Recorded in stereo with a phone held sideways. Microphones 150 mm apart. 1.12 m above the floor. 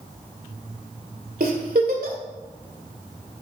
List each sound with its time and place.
1.4 s a giggle: 75° right (ahead or behind), 2 m